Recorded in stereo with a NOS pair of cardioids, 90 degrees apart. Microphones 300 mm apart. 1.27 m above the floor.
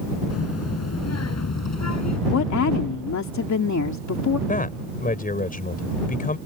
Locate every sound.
0.3 s a child speaking: 55° left; by 2.2 s 60° left
2.3 s a woman speaking: 65° left
4.5 s a man speaking: 30° left